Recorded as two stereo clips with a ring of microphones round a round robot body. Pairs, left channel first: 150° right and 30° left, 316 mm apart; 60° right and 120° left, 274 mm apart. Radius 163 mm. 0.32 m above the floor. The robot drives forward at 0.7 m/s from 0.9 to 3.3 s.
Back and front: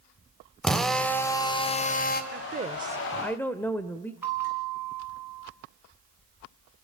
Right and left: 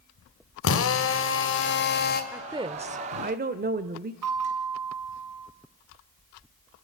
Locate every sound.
0.6 s a drill: 60° right, 1.9 m; by 2.2 s 100° right, 1.8 m
2.3 s a woman speaking: 45° left, 1.0 m; by 4.1 s 130° left, 1.0 m
4.2 s a bell: 115° left, 5 m